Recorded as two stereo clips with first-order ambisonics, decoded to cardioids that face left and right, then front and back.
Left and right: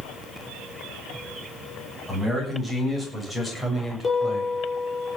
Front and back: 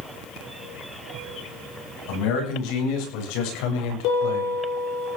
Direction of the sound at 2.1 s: 10° right.